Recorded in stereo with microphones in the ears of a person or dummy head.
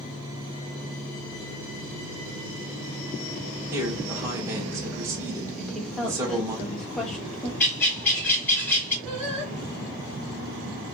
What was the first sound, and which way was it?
A man speaking, 15° right (ahead or behind).